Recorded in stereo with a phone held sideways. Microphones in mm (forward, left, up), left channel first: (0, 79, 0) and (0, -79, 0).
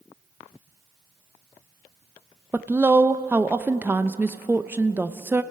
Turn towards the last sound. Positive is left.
turn(degrees=-15)  # may be behind; listen again after turning